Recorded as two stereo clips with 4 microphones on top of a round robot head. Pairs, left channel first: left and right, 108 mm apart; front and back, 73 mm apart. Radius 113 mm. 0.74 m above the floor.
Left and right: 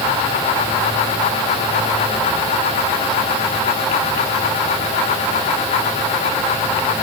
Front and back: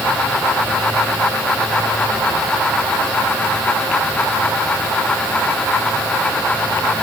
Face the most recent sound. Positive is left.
No sound to turn to.